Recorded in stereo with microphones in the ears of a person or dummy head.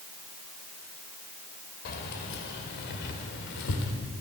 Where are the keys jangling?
55° left (ahead or behind), 4 m; by 3.9 s 70° left (ahead or behind), 3.5 m.